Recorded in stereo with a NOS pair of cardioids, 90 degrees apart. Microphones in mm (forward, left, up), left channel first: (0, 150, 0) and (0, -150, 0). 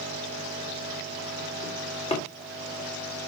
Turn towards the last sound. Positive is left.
turn(degrees=20)